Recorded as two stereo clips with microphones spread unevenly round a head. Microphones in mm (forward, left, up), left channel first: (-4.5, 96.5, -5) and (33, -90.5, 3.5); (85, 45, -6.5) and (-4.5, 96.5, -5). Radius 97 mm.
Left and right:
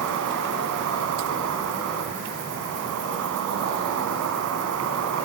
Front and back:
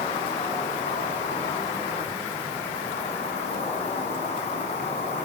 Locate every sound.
0.0 s an insect: 75° right, 7.5 m